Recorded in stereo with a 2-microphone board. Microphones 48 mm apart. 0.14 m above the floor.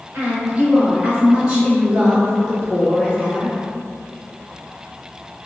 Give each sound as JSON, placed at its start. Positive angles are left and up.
{"t": 0.1, "sound": "a woman speaking", "side_deg": -40, "distance_m": 1.8}